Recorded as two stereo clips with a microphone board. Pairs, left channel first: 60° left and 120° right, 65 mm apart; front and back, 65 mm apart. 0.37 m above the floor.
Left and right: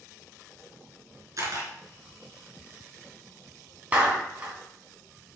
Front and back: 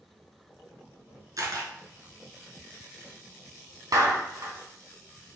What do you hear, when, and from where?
1.4 s a camera shutter: 155° right, 2.5 m
3.9 s a clap: 175° left, 2.5 m